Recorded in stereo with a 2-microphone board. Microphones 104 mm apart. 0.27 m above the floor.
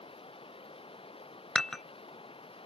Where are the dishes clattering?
5° left (ahead or behind).